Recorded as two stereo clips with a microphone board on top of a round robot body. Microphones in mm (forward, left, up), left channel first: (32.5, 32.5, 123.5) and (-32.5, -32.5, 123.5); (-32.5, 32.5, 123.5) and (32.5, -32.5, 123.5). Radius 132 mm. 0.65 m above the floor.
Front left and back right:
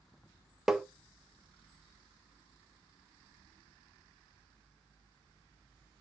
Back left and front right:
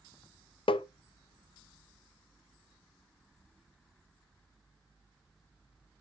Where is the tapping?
140° left, 0.6 m.